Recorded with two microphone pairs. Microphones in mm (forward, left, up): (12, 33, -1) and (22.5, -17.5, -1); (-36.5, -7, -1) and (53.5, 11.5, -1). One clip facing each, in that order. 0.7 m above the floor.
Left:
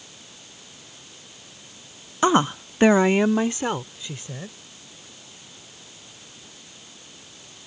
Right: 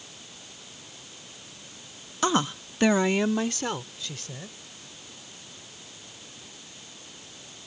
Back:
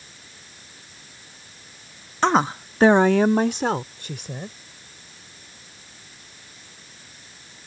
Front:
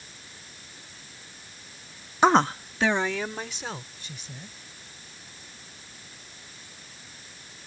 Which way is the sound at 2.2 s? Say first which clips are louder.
Left 6 dB, even; 70° left.